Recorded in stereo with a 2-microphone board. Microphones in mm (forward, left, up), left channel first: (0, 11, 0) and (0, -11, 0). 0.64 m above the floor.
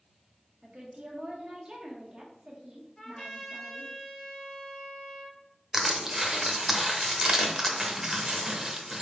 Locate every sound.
0.6 s a woman speaking: 40° right (ahead or behind), 0.9 m
3.0 s a trumpet: 30° left (ahead or behind), 1.7 m
5.7 s crushing: 20° right (ahead or behind), 0.6 m